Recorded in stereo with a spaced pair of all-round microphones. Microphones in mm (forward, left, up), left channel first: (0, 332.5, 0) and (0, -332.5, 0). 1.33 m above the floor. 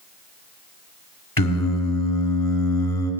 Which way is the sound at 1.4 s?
30° left (ahead or behind).